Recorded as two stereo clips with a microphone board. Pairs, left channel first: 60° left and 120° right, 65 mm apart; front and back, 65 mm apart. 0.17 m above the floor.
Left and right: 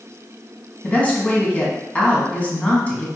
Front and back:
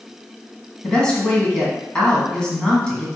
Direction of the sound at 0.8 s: 45° left.